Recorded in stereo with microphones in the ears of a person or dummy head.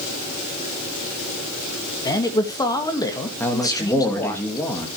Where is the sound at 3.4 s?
10° left (ahead or behind), 2 m.